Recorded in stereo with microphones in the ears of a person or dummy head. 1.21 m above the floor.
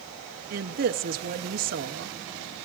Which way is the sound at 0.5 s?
45° right (ahead or behind).